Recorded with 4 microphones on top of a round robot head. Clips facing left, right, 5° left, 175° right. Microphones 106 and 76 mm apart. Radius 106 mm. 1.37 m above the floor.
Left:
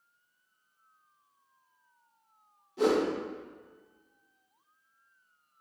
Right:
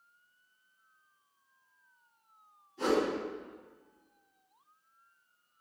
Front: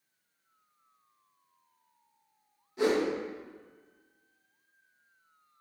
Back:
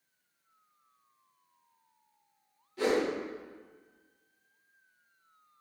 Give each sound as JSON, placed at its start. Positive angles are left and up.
{"t": 2.8, "sound": "a whoosh", "azimuth_deg": 75, "distance_m": 1.0}